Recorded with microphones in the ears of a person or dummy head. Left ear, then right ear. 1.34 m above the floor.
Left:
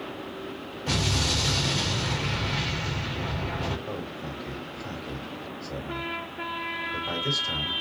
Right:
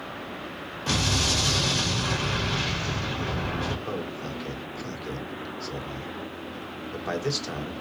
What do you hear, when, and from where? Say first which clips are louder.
0.9 s an explosion: right 2 dB; 55° right (ahead or behind), 1.9 m
3.9 s a man speaking: right 2 dB; 85° right, 1.4 m